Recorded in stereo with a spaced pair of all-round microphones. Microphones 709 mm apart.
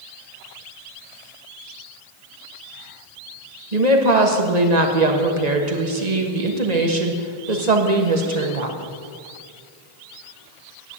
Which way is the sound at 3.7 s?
65° right (ahead or behind).